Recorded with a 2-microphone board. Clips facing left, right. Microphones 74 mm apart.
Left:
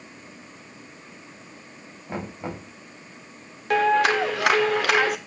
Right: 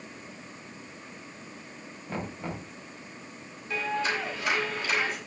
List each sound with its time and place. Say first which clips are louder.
2.1 s knocking: left 3 dB; 20° left (ahead or behind), 4.5 m
3.7 s a clap: left 11 dB; 70° left (ahead or behind), 1.9 m